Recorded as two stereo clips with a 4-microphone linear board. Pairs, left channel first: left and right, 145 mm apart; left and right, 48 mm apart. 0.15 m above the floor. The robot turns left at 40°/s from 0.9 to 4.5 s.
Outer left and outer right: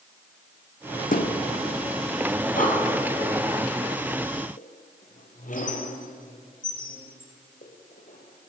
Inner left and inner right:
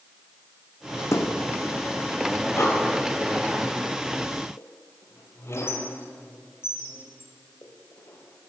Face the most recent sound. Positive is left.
turn(degrees=65)  # may be behind; listen again after turning